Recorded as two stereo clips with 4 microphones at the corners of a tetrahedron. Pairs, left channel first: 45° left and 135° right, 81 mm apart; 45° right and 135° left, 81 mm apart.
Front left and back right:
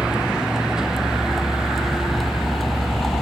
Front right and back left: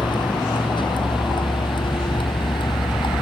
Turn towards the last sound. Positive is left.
turn(degrees=-40)